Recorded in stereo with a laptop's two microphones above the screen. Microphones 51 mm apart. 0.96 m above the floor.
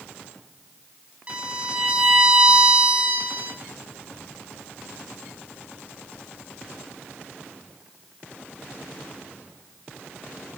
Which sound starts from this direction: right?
A violin, at 1.3 s.